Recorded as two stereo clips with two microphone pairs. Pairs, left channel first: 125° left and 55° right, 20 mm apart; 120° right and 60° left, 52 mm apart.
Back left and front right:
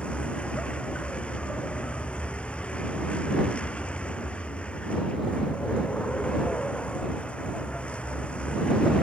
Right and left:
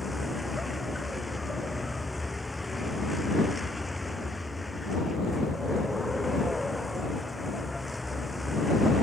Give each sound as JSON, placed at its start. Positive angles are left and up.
{"t": 0.0, "sound": "a vehicle", "azimuth_deg": 150}